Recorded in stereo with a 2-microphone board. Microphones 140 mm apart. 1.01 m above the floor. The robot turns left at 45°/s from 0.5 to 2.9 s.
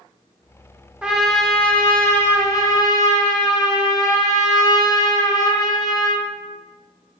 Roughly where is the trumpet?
Centre.